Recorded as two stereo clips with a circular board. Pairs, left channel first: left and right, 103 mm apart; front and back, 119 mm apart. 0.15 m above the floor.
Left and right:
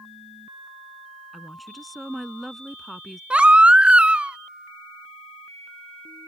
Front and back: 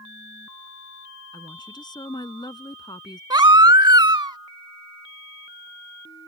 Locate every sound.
1.3 s a woman speaking: straight ahead
3.3 s a baby crying: 160° right